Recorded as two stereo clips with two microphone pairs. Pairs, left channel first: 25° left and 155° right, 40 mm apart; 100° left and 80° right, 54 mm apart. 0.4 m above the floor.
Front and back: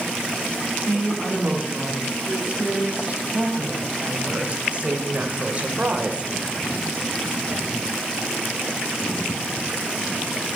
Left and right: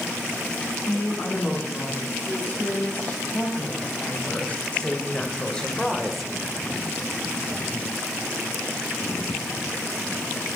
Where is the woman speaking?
150° left, 4.5 m; by 6.3 s 165° right, 1.3 m.